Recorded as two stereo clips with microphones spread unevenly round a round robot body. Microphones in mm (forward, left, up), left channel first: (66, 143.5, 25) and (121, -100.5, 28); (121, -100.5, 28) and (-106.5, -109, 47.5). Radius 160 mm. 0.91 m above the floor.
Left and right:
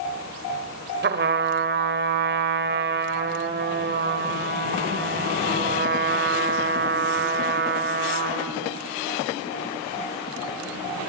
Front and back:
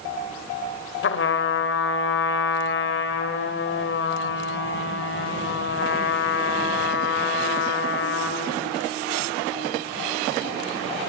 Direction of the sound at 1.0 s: 30° right.